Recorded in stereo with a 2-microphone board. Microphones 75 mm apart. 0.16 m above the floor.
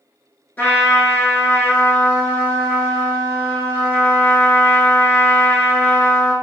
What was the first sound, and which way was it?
A trumpet, 25° left (ahead or behind).